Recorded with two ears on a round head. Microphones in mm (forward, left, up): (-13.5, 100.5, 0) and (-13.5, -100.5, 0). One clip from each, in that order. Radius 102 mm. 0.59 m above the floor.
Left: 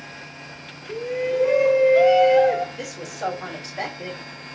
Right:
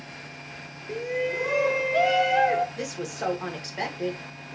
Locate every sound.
0.9 s a shout: 15° right (ahead or behind), 1.0 m
2.8 s a woman speaking: 15° right (ahead or behind), 1.8 m